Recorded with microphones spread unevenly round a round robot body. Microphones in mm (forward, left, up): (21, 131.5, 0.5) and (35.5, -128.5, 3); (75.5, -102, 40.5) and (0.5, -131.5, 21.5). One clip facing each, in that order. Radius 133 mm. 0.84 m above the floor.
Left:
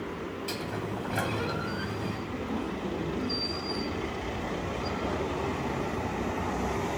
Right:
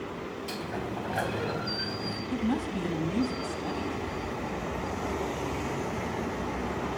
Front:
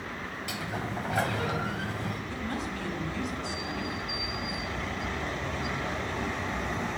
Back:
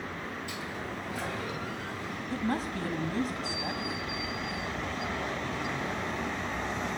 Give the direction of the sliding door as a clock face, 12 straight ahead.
12 o'clock.